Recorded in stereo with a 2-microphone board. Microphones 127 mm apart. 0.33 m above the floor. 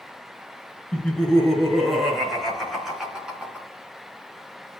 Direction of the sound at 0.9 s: 5° left (ahead or behind).